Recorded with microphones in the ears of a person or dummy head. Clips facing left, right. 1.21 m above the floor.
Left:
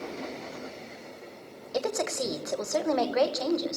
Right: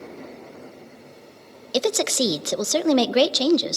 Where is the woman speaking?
40° right (ahead or behind), 1.0 m.